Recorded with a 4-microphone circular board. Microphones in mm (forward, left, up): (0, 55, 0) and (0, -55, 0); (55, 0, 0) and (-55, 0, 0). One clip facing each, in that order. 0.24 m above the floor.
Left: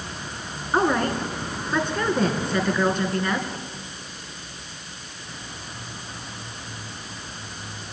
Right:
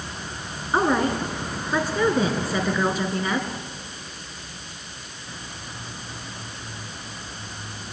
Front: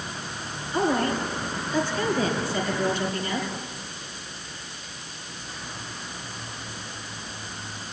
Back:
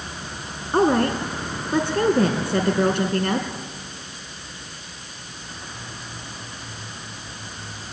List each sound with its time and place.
0.7 s a woman speaking: 175° right, 3 m